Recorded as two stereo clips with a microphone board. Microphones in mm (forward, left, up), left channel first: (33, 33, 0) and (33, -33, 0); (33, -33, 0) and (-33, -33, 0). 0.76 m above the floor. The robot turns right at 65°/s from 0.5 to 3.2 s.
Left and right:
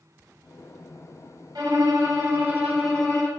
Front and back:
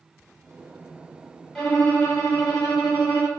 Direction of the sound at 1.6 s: 85° right.